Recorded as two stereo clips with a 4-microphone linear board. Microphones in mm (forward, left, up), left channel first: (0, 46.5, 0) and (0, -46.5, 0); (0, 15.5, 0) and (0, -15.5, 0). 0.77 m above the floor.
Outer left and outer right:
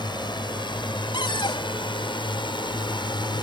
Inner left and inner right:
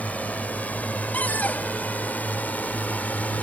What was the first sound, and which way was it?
A drone, 60° left (ahead or behind).